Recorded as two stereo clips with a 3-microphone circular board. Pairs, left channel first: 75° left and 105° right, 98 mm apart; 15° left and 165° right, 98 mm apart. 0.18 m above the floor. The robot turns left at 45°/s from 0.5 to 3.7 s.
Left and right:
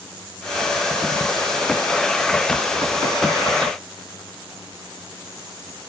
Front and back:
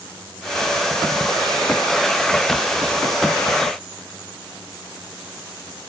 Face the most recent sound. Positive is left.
No sound to turn to.